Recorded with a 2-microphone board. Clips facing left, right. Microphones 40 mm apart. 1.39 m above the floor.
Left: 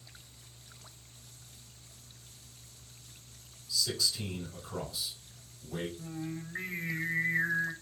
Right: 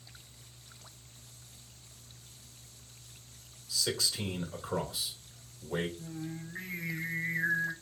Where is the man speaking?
60° right (ahead or behind), 2.5 m.